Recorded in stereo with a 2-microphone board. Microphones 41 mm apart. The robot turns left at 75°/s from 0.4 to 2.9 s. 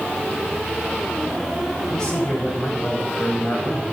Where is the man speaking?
170° left, 2.5 m; by 3.8 s 95° left, 2.5 m.